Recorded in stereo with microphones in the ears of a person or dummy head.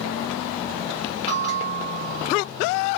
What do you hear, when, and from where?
1.3 s a bell: 15° right (ahead or behind), 2 m